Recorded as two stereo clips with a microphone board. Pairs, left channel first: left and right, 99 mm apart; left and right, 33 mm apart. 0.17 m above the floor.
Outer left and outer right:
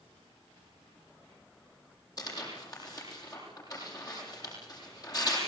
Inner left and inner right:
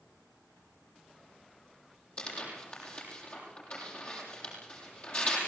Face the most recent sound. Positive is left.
turn(degrees=35)  # may be behind; listen again after turning